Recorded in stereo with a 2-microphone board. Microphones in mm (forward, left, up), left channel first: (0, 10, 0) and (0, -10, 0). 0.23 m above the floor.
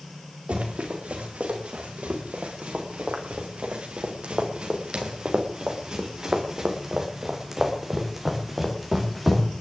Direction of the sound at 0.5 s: 85° right.